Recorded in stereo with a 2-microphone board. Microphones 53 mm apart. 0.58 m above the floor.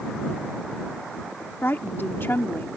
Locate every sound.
1.6 s a woman speaking: 45° left (ahead or behind)